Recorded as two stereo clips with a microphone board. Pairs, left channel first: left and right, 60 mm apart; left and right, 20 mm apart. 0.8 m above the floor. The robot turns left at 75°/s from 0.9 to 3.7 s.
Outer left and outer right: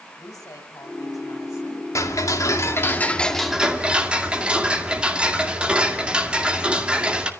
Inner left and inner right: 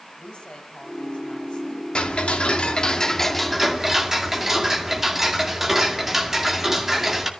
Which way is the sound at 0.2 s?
110° left.